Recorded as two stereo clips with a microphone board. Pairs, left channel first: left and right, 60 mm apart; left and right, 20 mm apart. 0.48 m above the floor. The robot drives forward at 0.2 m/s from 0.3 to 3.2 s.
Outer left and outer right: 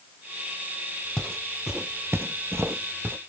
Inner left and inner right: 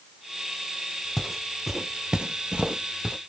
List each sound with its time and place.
1.2 s footsteps: 5° left (ahead or behind), 1.0 m; by 3.2 s 45° right (ahead or behind), 1.1 m